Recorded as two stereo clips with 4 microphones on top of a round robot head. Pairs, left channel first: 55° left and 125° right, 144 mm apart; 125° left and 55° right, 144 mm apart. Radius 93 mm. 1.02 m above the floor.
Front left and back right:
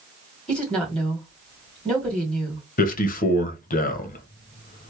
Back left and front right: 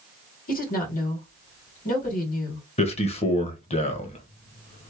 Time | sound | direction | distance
0.5 | a woman speaking | 135° left | 2 m
2.8 | a man speaking | 80° left | 0.9 m